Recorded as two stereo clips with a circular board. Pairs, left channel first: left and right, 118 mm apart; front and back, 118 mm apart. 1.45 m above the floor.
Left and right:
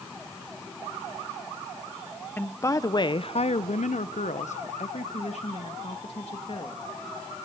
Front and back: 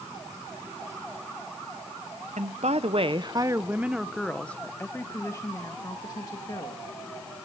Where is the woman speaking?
165° left, 0.9 m; by 6.9 s 55° left, 2 m.